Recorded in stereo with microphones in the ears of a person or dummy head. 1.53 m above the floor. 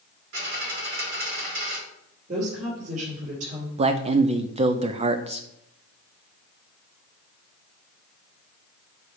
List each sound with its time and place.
0.3 s a dropped coin: 60° right (ahead or behind), 2 m
2.3 s a woman speaking: 50° right (ahead or behind), 4 m
3.8 s a man speaking: 35° right (ahead or behind), 0.6 m